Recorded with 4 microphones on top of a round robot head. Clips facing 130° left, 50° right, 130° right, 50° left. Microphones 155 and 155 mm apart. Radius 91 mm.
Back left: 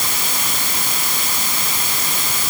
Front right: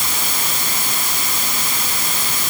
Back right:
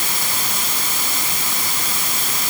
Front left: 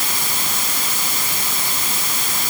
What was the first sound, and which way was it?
Only background noise.